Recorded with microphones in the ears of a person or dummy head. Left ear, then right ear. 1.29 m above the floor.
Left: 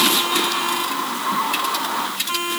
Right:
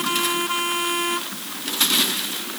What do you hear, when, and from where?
Only background noise.